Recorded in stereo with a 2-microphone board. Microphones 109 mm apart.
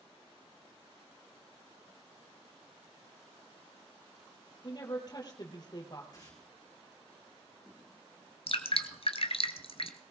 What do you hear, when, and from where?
4.6 s a woman speaking: 40° left (ahead or behind), 4 m
6.1 s tearing paper: 35° left (ahead or behind), 5 m
8.5 s dripping: 60° left (ahead or behind), 1.3 m